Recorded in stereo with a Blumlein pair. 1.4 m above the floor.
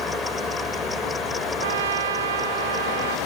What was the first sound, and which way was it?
A fan, 10° left.